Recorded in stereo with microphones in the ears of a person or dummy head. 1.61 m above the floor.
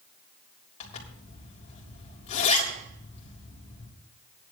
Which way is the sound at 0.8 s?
40° left (ahead or behind).